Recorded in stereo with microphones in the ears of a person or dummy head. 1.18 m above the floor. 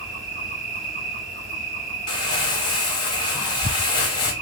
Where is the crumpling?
20° left (ahead or behind), 0.8 m.